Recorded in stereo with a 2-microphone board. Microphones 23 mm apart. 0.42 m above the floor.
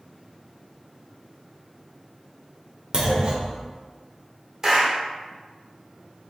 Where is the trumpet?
I don't hear a trumpet.